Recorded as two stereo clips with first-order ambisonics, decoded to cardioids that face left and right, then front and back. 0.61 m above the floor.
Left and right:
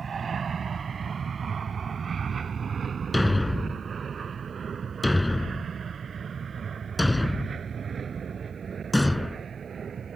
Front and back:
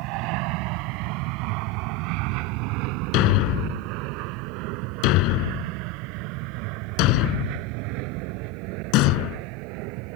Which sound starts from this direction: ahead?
A thud, at 3.1 s.